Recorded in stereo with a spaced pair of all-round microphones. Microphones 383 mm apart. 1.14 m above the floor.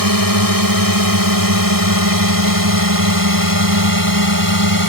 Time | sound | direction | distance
0.0 | a drone | 60° right (ahead or behind) | ?